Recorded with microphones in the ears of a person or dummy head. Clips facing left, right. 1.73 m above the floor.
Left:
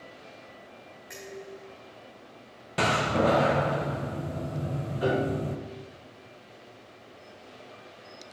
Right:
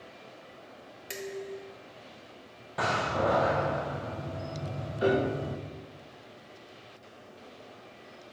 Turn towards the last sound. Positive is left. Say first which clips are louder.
# right 1 dB
turn(degrees=-30)  # may be behind; listen again after turning